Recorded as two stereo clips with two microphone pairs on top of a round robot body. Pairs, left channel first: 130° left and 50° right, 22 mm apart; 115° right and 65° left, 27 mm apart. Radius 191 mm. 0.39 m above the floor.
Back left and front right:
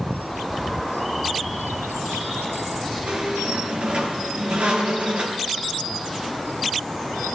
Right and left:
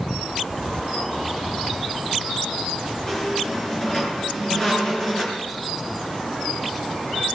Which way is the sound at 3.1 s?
50° right.